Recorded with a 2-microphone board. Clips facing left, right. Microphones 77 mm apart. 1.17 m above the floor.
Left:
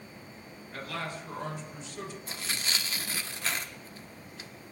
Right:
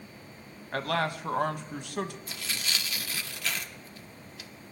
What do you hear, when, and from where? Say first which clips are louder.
0.7 s a man speaking: right 8 dB; 65° right (ahead or behind), 1.0 m
2.3 s tearing paper: even; 30° left (ahead or behind), 0.8 m